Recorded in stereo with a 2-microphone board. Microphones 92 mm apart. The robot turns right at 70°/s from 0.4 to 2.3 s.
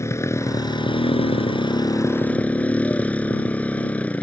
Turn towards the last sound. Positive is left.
turn(degrees=165)